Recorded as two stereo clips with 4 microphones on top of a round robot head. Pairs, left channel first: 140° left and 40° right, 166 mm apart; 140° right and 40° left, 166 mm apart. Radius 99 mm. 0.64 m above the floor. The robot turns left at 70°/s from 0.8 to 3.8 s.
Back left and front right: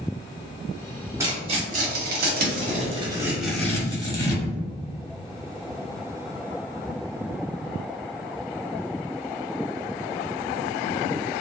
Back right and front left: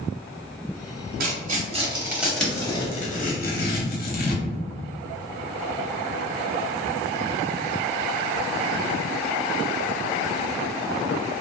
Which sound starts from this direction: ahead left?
Tearing paper, at 1.2 s.